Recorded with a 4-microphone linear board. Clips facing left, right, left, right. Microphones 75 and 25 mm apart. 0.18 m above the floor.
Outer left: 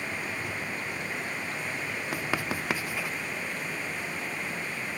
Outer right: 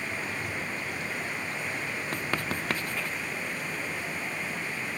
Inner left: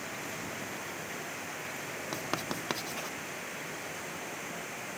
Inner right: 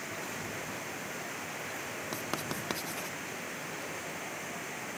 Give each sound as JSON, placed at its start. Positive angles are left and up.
{"t": 2.1, "sound": "writing", "side_deg": 10}